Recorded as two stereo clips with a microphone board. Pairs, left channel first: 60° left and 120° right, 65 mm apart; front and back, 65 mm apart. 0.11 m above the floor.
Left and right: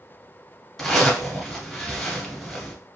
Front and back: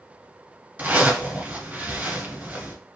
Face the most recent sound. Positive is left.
turn(degrees=145)